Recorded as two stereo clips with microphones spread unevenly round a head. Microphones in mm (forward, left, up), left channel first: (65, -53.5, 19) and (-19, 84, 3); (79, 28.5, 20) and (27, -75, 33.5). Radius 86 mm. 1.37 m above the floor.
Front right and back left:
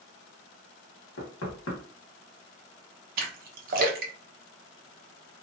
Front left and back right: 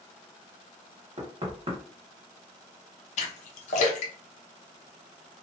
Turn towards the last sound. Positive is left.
turn(degrees=90)